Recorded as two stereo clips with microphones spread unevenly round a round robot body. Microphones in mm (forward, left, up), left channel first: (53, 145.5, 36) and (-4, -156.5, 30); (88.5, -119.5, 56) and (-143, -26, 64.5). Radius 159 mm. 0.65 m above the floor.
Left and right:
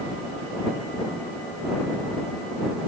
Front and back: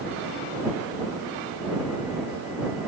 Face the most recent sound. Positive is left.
No sound to turn to.